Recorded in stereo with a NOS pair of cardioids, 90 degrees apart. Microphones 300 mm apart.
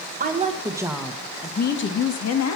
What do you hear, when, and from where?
0.2 s a woman speaking: 30° right, 1.5 m; by 2.6 s 65° left, 1.6 m